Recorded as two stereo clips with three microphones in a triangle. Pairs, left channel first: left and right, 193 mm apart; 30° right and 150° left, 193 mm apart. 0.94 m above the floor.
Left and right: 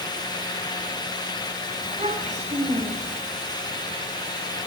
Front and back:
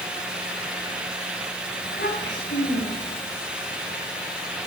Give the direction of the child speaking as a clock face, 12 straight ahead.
1 o'clock.